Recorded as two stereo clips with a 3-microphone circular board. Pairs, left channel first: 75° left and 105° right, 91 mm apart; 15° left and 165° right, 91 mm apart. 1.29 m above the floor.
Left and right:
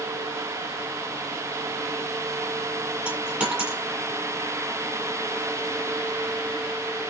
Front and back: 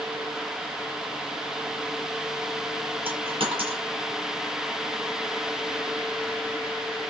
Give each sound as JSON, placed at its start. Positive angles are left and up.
{"t": 3.0, "sound": "a dropped coin", "azimuth_deg": 175, "distance_m": 6.5}